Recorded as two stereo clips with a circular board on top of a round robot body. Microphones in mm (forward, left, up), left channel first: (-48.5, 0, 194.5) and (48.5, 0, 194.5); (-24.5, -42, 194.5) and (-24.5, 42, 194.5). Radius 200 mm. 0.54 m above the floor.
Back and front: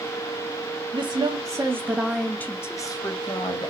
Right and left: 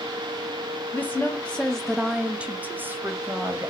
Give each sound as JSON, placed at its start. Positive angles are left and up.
{"t": 0.9, "sound": "a woman speaking", "azimuth_deg": -20, "distance_m": 1.1}